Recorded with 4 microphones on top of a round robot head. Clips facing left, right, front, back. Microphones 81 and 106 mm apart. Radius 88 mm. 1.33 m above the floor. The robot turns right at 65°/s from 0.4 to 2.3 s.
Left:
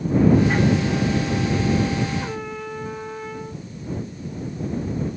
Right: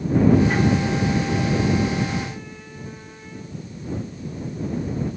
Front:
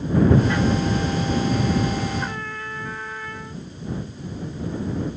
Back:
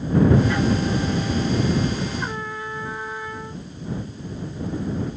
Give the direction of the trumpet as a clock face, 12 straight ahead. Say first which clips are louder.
Left 5 dB, back 1 dB; 9 o'clock.